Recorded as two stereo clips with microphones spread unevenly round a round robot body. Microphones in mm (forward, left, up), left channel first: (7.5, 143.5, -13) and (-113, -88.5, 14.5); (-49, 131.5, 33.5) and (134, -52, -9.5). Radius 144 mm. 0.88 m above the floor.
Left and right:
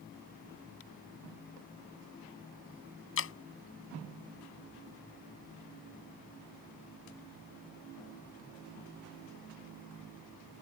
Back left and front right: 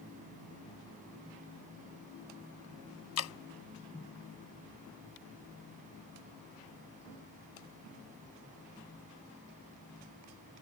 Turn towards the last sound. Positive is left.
turn(degrees=105)